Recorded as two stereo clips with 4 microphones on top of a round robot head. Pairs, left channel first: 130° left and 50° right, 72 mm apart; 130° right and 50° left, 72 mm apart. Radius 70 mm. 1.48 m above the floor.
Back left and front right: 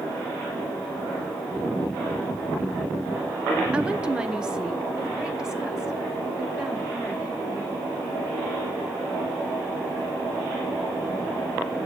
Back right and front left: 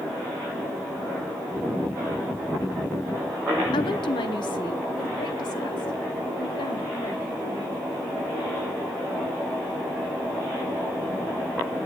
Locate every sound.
3.7 s a woman speaking: 125° right, 0.7 m; by 7.9 s 130° right, 4 m